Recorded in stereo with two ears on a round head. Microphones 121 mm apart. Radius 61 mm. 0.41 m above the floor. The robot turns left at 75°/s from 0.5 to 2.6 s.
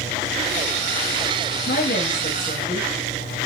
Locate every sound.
1.7 s a woman speaking: 85° left, 6.5 m; by 2.9 s 10° left, 6.5 m